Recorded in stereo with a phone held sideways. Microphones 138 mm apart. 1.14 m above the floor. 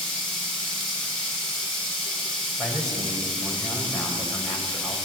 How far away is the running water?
About 6.5 m.